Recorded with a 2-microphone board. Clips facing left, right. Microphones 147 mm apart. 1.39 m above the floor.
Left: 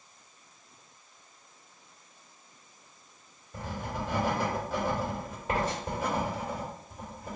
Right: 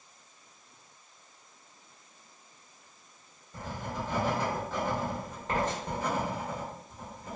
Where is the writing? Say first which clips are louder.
Left 1 dB; 10° left (ahead or behind), 1.3 m.